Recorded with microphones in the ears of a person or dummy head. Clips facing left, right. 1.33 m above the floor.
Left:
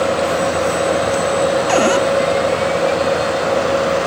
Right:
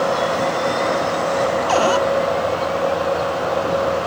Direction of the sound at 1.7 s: 30° left (ahead or behind).